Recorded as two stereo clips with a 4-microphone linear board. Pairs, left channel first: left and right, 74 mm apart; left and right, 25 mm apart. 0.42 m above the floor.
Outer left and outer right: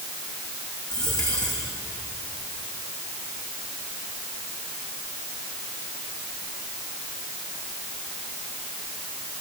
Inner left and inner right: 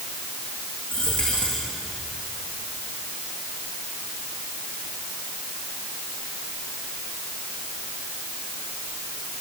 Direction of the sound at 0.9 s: 65° left (ahead or behind).